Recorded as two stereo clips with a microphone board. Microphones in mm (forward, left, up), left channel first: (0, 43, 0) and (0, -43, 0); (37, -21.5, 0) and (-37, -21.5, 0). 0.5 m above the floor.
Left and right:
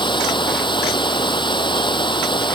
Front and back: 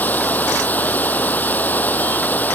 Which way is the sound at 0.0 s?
65° left.